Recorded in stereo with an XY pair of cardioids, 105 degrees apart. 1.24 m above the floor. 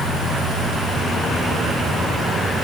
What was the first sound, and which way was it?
Only background noise.